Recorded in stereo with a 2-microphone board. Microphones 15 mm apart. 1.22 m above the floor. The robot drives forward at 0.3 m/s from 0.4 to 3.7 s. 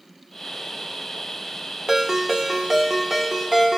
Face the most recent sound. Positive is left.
turn(degrees=-15)  # may be behind; listen again after turning